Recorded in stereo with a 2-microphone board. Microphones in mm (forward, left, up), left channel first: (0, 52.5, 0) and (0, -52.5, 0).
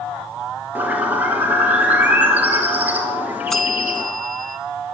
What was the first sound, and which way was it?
A bird, 15° right (ahead or behind).